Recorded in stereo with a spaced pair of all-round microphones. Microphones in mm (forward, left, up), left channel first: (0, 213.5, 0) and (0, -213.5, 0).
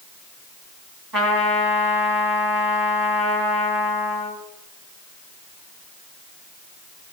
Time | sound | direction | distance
1.1 | a trumpet | 55° right (ahead or behind) | 3 m